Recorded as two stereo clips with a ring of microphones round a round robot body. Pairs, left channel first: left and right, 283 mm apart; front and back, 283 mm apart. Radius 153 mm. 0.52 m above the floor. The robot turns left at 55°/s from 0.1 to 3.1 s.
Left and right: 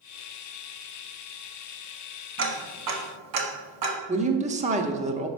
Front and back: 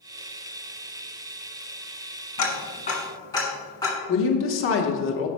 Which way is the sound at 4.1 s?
30° right.